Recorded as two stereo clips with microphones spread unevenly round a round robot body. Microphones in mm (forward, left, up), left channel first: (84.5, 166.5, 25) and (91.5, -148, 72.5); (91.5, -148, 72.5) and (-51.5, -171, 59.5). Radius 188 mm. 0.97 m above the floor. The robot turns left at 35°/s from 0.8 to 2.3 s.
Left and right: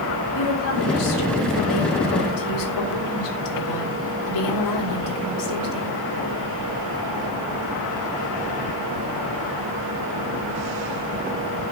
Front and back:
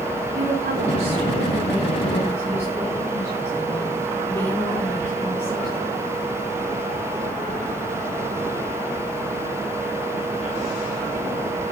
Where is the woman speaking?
140° left, 3.5 m; by 6.0 s 90° left, 3.5 m.